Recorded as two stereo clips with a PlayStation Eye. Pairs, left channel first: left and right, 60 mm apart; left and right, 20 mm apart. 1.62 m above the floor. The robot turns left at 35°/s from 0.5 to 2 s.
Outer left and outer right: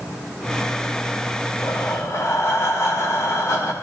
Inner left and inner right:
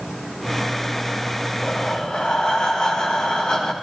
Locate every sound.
1.6 s breathing: 70° left (ahead or behind), 3.5 m; by 3.7 s 55° left (ahead or behind), 3.5 m